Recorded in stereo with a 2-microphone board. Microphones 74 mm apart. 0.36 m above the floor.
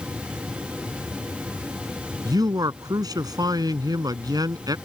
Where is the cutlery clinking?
No cutlery clinking in this recording.